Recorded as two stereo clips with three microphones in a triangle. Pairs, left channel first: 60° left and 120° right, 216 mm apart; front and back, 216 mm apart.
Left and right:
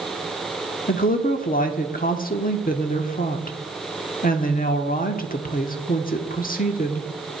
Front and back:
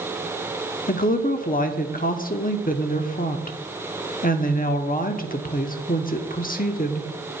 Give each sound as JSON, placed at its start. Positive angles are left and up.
{"t": 0.9, "sound": "a woman speaking", "azimuth_deg": 30, "distance_m": 1.1}